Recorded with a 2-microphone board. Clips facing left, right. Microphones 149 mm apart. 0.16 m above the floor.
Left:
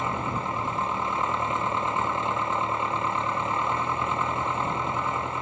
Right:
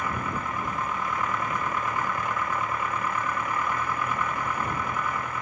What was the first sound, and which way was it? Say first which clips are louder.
An engine running: left 2 dB; 25° left (ahead or behind).